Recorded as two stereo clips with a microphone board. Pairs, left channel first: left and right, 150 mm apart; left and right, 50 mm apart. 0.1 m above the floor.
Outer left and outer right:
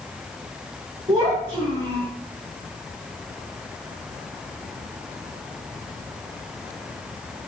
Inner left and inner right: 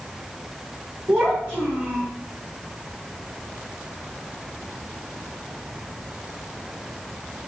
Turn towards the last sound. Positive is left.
turn(degrees=-45)  # may be behind; listen again after turning